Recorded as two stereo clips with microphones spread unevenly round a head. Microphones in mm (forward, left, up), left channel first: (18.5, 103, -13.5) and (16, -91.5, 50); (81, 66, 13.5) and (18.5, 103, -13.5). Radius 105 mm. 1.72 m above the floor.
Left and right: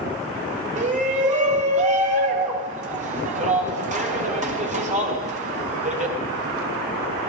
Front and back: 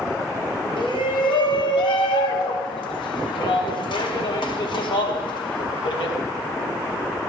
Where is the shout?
35° right, 2.5 m.